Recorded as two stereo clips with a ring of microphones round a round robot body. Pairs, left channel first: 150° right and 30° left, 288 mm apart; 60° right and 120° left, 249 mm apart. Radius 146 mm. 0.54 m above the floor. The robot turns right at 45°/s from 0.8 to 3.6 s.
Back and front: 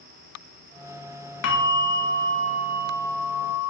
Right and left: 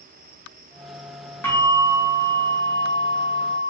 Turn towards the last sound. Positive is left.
turn(degrees=-40)